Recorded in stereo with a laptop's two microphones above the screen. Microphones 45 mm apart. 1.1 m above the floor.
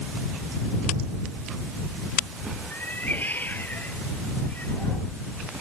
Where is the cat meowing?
45° left (ahead or behind).